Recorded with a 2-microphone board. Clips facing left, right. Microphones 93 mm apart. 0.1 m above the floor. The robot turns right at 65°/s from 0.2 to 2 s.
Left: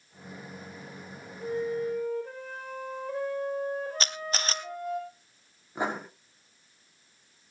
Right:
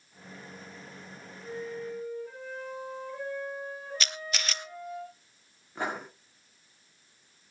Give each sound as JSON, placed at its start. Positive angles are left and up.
{"t": 1.4, "sound": "a flute", "azimuth_deg": 55, "distance_m": 3.5}
{"t": 4.0, "sound": "a camera shutter", "side_deg": 40, "distance_m": 0.8}
{"t": 5.8, "sound": "writing", "side_deg": 15, "distance_m": 6.0}